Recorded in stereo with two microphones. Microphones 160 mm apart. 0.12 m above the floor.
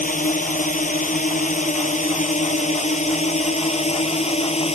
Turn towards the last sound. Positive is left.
turn(degrees=40)  # may be behind; listen again after turning